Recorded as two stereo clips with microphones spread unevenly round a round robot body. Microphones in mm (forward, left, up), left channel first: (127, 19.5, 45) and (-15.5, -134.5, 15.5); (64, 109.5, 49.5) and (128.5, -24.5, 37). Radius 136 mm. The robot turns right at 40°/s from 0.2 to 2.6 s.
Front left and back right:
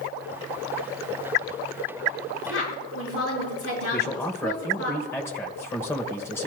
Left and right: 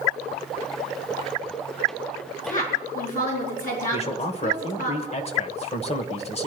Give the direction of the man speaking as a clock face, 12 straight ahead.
8 o'clock.